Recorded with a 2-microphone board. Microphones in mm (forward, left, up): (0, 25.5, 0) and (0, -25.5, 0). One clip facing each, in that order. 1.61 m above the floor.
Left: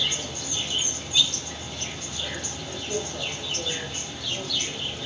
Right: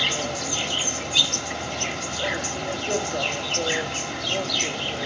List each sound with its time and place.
0.0 s an insect: 70° right (ahead or behind), 0.9 m